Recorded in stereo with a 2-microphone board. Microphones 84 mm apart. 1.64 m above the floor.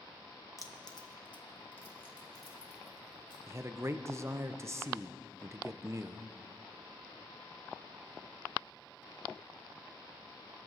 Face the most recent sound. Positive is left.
turn(degrees=-30)  # may be behind; listen again after turning